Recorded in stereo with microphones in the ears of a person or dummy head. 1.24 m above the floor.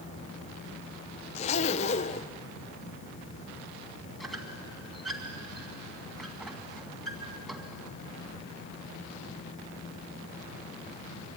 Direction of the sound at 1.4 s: 40° left (ahead or behind).